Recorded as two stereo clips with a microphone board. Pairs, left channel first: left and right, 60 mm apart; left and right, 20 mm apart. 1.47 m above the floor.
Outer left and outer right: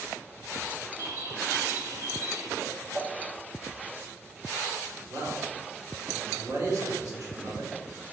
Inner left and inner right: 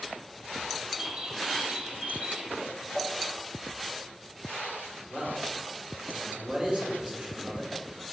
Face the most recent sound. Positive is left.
turn(degrees=-85)